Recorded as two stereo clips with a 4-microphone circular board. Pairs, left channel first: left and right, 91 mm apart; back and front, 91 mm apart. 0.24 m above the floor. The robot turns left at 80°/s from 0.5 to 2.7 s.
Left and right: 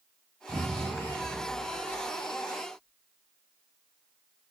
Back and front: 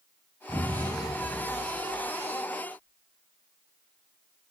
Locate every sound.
0.5 s an explosion: 125° right, 1.7 m; by 2.4 s 80° left, 1.7 m